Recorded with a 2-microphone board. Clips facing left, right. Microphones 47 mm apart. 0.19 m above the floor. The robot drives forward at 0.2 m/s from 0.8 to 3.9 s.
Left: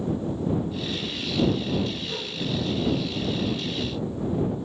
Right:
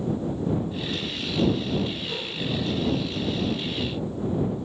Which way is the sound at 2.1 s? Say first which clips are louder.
Right 1 dB; 30° right (ahead or behind).